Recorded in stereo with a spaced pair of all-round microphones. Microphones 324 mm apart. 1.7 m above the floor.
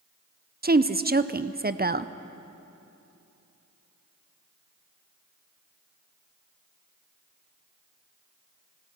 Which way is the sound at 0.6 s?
30° right (ahead or behind).